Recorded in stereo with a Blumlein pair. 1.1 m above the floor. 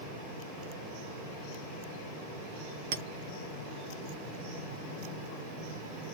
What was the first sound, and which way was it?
A clink, 50° right.